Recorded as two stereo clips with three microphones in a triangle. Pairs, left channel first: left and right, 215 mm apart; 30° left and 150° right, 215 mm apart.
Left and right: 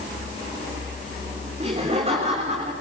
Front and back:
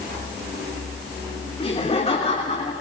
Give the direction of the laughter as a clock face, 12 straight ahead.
1 o'clock.